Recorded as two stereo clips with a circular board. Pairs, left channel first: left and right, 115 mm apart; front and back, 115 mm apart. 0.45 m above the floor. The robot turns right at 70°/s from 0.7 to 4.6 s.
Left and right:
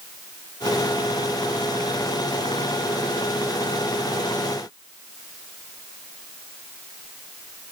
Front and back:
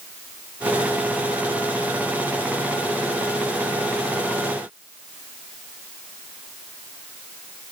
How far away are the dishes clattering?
I don't hear dishes clattering.